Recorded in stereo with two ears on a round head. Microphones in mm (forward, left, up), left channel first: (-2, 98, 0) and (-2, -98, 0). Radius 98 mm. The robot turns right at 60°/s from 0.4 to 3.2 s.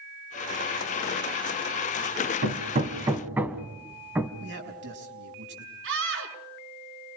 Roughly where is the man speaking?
Right.